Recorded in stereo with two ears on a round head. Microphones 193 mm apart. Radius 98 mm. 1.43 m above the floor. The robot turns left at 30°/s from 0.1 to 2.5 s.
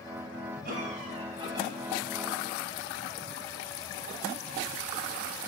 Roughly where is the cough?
Behind right.